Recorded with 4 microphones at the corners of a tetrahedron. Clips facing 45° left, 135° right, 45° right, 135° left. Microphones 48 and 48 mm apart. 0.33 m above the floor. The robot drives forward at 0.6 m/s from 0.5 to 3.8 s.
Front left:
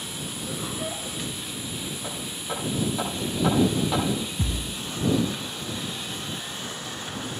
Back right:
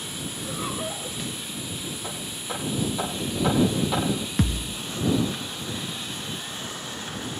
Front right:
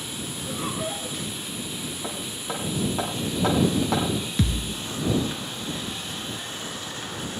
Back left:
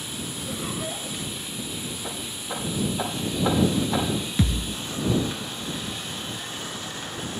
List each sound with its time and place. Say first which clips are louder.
0.3 s laughter: back right 2 dB, front right 2 dB; 65° right, 4.5 m; by 1.2 s 70° right, 4.5 m
2.0 s hammering: front left 1 dB, front right 1 dB; 35° right, 10 m; by 4.0 s 40° right, 9 m
4.4 s a thud: back right 4 dB, back left 1 dB; 140° right, 1.1 m